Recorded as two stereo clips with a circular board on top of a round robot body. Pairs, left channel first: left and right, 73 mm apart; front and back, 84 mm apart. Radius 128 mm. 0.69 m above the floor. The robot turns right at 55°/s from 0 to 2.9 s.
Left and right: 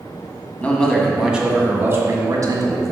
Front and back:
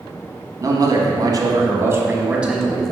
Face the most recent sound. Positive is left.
turn(degrees=-85)